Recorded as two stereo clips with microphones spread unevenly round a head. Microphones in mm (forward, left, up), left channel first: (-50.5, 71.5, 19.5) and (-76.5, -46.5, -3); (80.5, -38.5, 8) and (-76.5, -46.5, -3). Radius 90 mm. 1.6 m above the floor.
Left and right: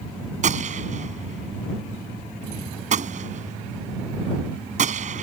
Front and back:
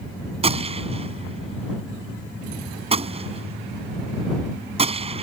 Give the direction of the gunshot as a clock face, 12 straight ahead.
4 o'clock.